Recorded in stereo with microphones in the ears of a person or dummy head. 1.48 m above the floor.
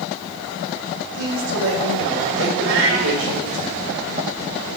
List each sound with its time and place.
1.1 s a woman speaking: 85° right, 5 m
2.6 s a cat meowing: 75° right (ahead or behind), 3 m